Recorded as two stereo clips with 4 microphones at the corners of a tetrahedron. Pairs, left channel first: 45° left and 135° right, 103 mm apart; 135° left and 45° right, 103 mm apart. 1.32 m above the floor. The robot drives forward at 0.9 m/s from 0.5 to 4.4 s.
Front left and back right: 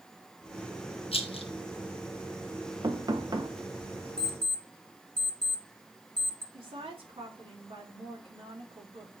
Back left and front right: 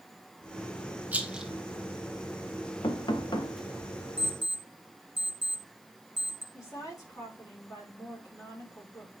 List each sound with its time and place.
1.1 s a rattle: 30° left, 1.1 m; by 1.5 s 45° left, 0.8 m
2.8 s knocking: 175° left, 0.9 m; by 3.5 s straight behind, 1.5 m
4.2 s an alarm clock: 30° right, 1.4 m; by 6.4 s 35° right, 1.2 m
6.5 s a woman speaking: 165° right, 3.5 m